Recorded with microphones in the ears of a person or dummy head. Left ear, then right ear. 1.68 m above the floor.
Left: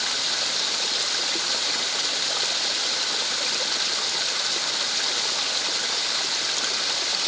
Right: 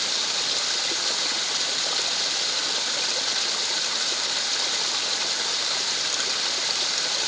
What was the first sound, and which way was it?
Only background noise.